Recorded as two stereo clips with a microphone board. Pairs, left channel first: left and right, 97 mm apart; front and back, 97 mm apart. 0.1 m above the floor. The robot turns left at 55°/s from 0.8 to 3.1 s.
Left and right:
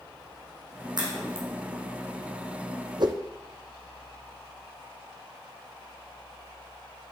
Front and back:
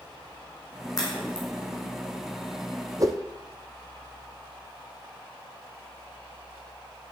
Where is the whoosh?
130° right, 1.0 m; by 3.2 s 135° right, 1.0 m.